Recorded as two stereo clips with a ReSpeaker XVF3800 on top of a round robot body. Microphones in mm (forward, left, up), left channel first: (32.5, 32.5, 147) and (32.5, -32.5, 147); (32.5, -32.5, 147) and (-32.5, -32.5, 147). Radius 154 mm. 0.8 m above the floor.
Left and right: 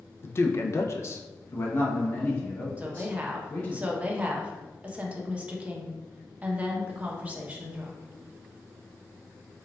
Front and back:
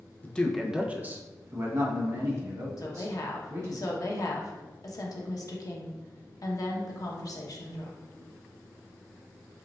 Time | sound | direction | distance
0.2 | a man speaking | 55° left | 0.6 m
2.8 | a woman speaking | 25° right | 1.0 m